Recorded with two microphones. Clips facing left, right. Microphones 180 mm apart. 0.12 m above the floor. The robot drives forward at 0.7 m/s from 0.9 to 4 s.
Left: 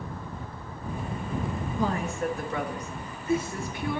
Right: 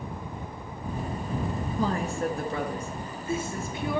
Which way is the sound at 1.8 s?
35° right (ahead or behind).